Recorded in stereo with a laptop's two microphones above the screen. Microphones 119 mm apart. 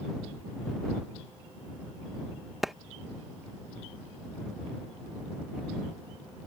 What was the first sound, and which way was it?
A clap, centre (ahead or behind).